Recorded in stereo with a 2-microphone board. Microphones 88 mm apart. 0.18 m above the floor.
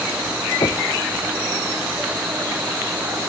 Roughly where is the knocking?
Left.